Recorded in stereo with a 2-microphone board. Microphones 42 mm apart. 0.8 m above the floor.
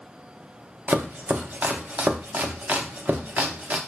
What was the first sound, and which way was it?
Chopping, 45° right (ahead or behind).